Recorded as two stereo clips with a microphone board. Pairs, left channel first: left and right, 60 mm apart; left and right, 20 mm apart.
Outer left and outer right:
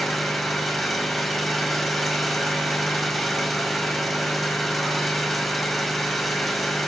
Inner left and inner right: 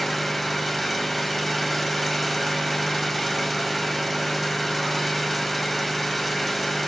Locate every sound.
0.0 s an engine running: centre (ahead or behind), 4.5 m